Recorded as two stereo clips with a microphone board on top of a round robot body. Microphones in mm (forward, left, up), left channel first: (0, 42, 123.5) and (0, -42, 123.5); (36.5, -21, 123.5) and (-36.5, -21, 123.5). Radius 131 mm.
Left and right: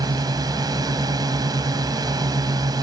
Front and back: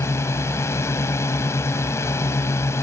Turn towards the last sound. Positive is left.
turn(degrees=-50)